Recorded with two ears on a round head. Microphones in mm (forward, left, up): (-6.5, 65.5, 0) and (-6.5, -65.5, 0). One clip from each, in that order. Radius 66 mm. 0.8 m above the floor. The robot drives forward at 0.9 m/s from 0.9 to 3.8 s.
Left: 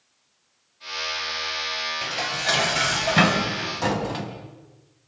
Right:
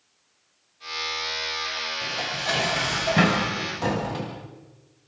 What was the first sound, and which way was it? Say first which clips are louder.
Dishes clattering: left 3 dB; 40° left (ahead or behind).